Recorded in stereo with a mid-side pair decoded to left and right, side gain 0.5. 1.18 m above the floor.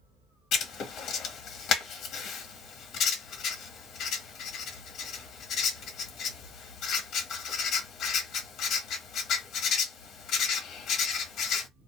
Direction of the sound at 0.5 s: 65° left.